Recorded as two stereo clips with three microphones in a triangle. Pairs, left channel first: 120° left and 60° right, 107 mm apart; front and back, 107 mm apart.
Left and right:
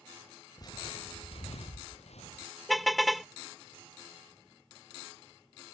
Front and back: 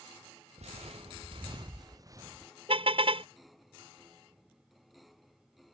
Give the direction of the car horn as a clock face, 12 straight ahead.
5 o'clock.